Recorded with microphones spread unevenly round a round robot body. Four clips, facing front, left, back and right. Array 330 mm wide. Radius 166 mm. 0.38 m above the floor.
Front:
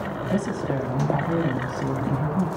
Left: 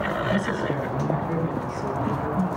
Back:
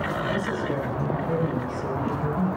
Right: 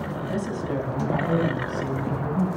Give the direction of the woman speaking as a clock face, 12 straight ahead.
12 o'clock.